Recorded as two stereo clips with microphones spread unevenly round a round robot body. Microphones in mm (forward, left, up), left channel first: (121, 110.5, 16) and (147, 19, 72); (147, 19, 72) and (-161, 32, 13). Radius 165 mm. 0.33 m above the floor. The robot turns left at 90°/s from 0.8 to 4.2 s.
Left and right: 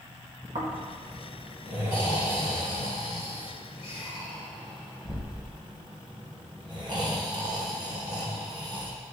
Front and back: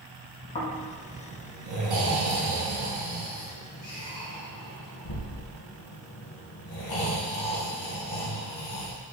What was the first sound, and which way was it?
Snoring, 75° right.